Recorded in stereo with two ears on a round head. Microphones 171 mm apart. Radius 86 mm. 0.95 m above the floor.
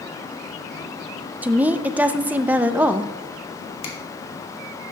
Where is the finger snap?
30° left (ahead or behind), 1.7 m.